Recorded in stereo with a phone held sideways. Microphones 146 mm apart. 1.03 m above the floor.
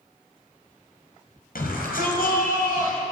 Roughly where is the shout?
Left.